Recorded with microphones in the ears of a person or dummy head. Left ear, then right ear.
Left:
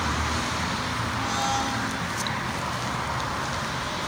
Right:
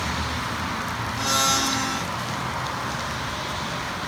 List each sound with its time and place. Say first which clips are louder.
1.2 s a blender: right 6 dB; 75° right (ahead or behind), 1.0 m